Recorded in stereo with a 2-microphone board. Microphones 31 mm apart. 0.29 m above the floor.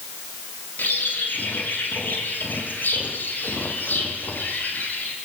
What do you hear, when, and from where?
0.8 s a bird: 90° left, 4 m